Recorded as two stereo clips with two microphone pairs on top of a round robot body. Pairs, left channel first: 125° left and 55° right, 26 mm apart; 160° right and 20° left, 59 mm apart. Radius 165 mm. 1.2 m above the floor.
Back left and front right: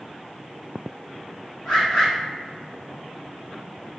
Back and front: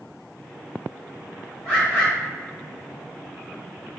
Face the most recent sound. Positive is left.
turn(degrees=160)